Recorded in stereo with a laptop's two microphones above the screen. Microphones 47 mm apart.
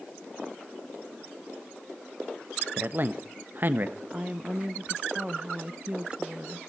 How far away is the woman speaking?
About 0.7 m.